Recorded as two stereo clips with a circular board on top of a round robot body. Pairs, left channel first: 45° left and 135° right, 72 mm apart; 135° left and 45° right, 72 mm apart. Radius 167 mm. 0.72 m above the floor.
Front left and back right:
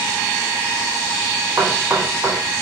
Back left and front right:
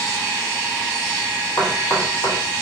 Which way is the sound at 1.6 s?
165° left.